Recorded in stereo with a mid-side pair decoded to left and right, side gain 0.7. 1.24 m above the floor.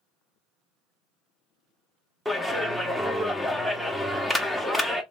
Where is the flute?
No flute in this recording.